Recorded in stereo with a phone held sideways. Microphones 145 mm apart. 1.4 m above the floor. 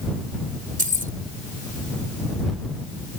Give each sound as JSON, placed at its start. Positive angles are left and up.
{"t": 0.8, "sound": "keys jangling", "side_deg": -70}